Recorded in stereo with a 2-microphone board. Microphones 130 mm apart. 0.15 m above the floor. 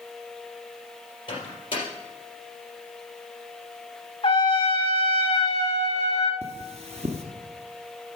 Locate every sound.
1.3 s a microwave: 40° left (ahead or behind), 4 m
4.2 s a trumpet: 40° left (ahead or behind), 1.3 m
6.4 s cutlery clinking: 55° right (ahead or behind), 1.5 m